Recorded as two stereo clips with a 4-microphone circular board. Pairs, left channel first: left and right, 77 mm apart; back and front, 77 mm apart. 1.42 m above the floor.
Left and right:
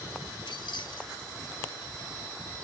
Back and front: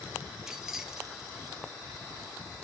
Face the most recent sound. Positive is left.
turn(degrees=85)